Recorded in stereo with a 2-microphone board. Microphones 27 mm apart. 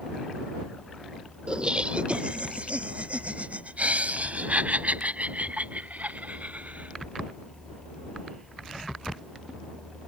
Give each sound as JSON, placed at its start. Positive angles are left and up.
{"t": 1.5, "sound": "laughter", "side_deg": -35}